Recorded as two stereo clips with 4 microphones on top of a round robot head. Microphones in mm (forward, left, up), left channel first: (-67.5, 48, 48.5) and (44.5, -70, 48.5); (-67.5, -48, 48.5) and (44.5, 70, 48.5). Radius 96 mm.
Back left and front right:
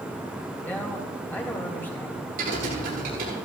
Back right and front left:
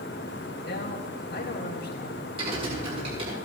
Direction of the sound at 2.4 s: 15° right.